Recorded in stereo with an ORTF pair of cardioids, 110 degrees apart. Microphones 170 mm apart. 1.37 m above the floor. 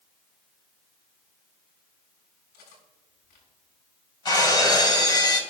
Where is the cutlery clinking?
70° left, 7 m.